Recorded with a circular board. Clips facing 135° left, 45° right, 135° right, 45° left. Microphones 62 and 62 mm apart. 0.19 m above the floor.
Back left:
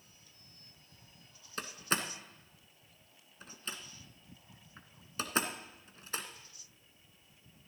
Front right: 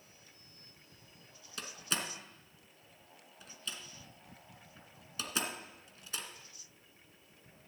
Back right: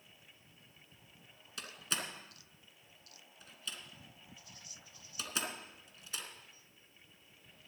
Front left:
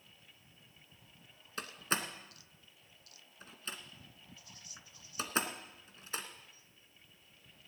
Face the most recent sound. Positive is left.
turn(degrees=90)